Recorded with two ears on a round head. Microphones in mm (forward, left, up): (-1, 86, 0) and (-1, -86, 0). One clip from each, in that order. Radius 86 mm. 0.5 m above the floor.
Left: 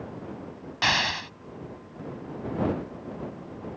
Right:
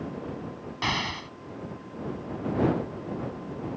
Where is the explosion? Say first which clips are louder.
Left 5 dB; 50° left (ahead or behind).